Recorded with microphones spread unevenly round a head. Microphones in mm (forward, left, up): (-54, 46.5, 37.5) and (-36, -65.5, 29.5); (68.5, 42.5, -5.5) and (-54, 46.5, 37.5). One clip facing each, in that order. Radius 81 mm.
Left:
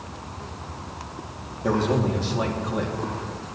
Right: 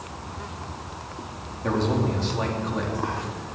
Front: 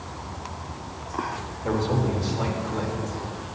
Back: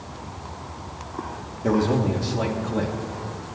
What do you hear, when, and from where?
1.6 s a man speaking: straight behind, 2.5 m